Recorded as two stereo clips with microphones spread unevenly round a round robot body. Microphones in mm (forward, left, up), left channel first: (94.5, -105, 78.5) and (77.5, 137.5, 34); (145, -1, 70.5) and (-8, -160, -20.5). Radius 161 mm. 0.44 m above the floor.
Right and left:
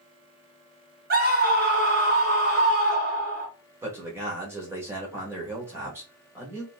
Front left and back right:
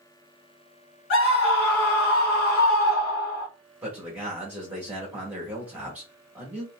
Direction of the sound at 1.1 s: 90° left.